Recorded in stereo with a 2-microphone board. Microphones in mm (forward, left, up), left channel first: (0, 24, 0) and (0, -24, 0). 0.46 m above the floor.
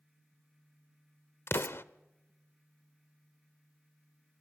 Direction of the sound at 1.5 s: 60° left (ahead or behind).